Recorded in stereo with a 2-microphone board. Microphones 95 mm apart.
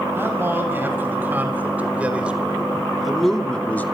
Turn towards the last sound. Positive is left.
turn(degrees=20)  # may be behind; listen again after turning